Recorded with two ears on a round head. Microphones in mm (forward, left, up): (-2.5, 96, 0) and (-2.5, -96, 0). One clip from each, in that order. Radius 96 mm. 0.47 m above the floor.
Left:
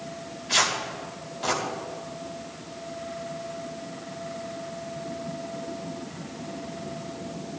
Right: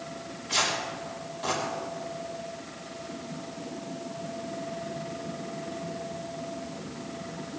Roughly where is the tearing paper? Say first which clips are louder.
Left 3 dB; left.